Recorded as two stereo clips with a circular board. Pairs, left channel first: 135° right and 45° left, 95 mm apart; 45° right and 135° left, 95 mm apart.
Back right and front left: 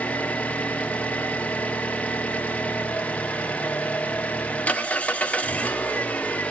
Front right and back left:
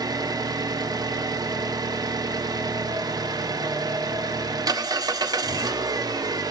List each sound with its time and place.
0.0 s an engine running: 155° left, 0.8 m